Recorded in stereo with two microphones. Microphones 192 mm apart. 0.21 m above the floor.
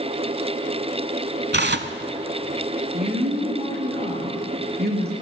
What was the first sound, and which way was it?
Tearing paper, 65° right (ahead or behind).